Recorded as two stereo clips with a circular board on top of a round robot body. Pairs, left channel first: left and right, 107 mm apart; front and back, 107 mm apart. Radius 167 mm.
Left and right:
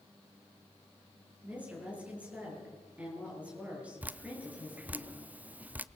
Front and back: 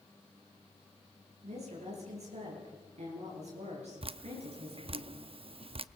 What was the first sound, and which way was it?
A woman speaking, 170° right.